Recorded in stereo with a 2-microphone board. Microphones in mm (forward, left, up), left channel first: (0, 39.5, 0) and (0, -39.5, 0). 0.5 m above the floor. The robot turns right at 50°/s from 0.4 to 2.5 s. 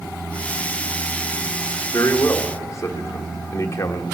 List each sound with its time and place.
1.9 s a man speaking: 35° left (ahead or behind), 1.1 m